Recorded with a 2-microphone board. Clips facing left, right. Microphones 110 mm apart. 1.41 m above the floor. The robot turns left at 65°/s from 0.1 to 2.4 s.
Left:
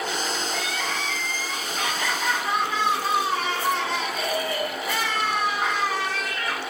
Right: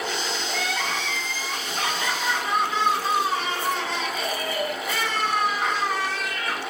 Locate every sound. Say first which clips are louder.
0.5 s crying: right 1 dB; 55° right, 8.5 m; by 6.6 s straight behind, 8.5 m